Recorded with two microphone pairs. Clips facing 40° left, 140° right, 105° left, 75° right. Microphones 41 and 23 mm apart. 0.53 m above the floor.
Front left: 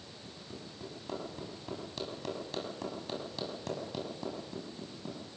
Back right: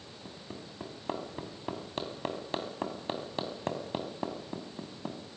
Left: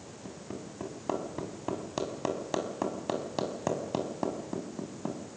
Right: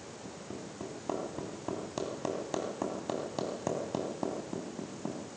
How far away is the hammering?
About 3.5 m.